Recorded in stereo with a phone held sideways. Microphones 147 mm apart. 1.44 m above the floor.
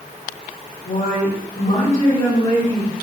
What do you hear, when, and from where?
0.8 s a woman speaking: 70° left (ahead or behind), 2 m; by 2.9 s 10° left (ahead or behind), 2 m